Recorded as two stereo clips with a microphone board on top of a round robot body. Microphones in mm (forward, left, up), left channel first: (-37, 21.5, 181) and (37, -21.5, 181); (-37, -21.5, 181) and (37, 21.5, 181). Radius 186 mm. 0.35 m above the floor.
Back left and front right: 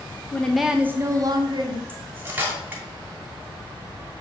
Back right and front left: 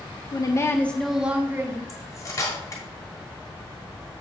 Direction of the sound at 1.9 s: 100° right.